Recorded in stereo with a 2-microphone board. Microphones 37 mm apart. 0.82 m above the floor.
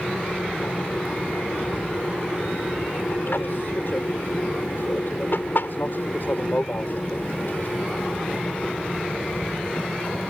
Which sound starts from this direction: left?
An aircraft, at 0.0 s.